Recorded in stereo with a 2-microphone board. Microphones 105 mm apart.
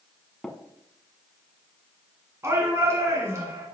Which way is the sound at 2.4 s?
30° right (ahead or behind).